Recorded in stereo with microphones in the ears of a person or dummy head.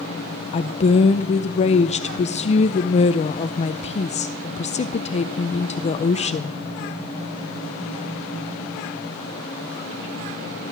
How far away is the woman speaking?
About 0.6 m.